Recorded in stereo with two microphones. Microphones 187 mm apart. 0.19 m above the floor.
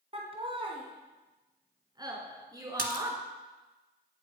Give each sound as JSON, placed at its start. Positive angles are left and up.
{"t": 0.1, "sound": "laughter", "side_deg": -30, "distance_m": 2.0}
{"t": 2.8, "sound": "a splash", "side_deg": -60, "distance_m": 1.4}